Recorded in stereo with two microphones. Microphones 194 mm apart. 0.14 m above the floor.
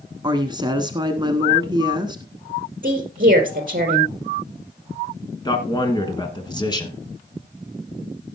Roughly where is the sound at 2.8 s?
Right.